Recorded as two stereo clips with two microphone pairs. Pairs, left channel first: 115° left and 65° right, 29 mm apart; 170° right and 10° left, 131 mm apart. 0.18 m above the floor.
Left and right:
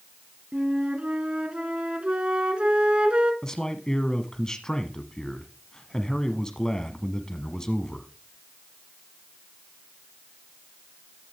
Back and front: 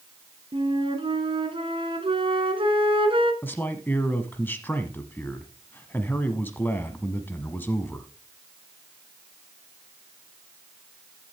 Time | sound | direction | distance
0.5 | a flute | 25° right | 1.5 m
3.4 | a man speaking | 145° left | 1.0 m